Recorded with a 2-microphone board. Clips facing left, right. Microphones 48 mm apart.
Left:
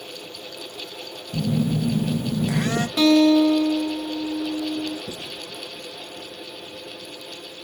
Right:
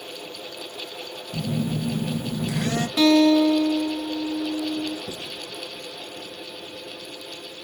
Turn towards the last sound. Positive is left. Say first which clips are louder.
# even
turn(degrees=-55)  # may be behind; listen again after turning